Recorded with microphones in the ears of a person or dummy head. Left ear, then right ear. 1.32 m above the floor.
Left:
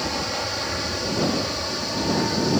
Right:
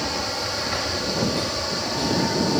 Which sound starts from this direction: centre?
An aircraft, at 0.0 s.